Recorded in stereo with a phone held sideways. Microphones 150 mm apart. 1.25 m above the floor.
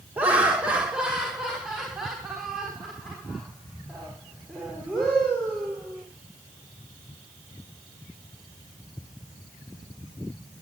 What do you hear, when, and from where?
0.2 s laughter: 10° right (ahead or behind), 1.5 m; by 6.0 s centre (ahead or behind), 5 m